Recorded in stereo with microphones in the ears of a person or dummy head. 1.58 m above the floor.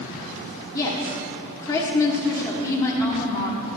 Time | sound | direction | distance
0.7 | a woman speaking | 15° left (ahead or behind) | 1.2 m